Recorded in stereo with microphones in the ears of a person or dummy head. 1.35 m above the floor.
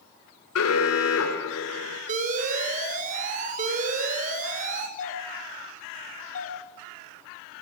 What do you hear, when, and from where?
0.6 s an alarm: 85° left, 4 m
2.1 s an alarm: 45° right (ahead or behind), 4 m
5.0 s a doorbell: 40° left (ahead or behind), 3.5 m